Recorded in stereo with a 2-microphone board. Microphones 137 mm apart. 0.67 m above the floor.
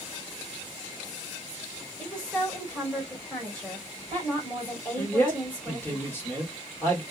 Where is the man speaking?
15° left (ahead or behind), 1.4 m.